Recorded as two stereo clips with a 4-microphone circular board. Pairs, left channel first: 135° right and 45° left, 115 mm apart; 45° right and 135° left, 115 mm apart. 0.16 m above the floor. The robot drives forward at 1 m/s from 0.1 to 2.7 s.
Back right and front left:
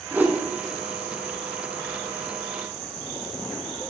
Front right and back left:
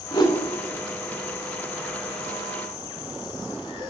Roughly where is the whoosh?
Ahead.